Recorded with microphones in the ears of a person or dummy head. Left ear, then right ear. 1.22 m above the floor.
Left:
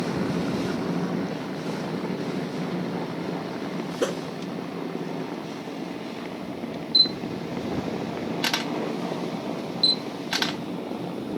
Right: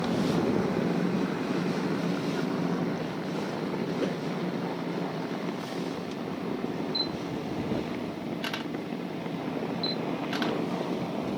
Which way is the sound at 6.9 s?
35° left (ahead or behind).